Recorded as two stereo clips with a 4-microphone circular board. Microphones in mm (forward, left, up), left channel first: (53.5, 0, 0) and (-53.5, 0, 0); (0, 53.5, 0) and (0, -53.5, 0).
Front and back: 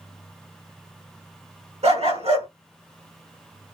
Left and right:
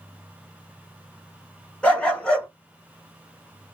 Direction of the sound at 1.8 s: 170° left.